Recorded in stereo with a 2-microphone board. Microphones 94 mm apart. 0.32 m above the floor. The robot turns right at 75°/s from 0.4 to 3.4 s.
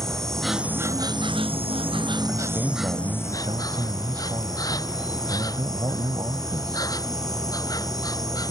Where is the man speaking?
175° right; by 6.9 s 90° right.